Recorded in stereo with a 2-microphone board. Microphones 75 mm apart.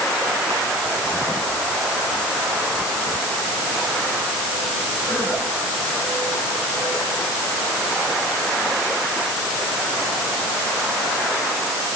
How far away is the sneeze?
No sneeze in this recording.